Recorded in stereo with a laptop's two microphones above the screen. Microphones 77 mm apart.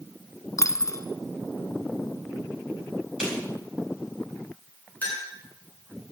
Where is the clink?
20° left (ahead or behind), 5.5 m.